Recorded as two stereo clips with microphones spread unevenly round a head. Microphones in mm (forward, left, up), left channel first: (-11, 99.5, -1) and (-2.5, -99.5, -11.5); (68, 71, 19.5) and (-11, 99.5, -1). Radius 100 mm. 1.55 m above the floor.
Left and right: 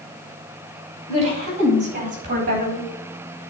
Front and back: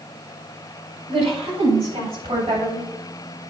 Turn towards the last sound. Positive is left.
turn(degrees=-135)